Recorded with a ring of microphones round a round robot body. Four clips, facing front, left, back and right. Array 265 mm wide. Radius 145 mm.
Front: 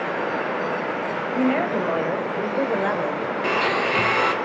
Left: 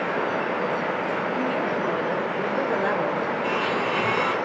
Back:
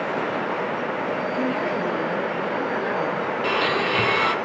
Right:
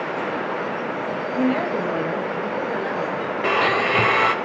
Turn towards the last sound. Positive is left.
turn(degrees=-75)